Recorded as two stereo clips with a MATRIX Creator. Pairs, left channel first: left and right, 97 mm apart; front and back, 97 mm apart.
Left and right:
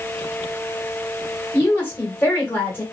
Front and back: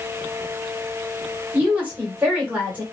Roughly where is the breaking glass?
I don't hear breaking glass.